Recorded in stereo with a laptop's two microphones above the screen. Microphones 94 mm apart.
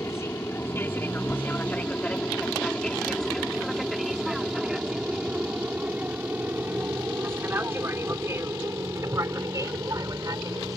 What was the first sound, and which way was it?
An aircraft, 30° left (ahead or behind).